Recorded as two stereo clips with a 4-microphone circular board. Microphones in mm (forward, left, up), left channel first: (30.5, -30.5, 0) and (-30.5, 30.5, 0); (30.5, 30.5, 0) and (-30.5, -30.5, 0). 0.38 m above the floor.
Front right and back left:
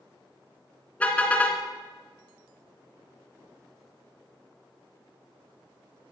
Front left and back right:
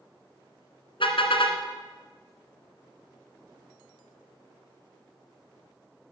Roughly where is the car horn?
Ahead left.